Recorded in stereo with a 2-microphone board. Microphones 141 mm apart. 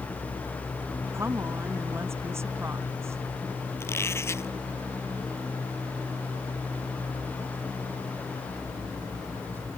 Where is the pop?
I don't hear a pop.